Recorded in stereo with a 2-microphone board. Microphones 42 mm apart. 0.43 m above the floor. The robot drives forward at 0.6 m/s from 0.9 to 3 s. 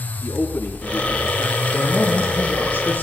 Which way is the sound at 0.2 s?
75° left (ahead or behind).